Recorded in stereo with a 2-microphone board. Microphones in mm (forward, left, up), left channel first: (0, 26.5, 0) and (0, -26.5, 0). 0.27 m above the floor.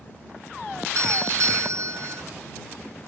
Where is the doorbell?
65° right (ahead or behind).